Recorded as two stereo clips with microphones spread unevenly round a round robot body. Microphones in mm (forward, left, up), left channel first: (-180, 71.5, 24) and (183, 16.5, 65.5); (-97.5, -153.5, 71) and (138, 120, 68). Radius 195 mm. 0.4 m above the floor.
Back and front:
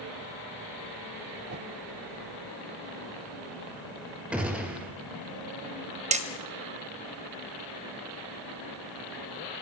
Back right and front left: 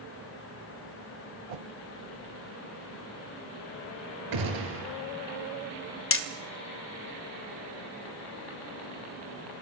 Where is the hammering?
80° right, 1.5 m.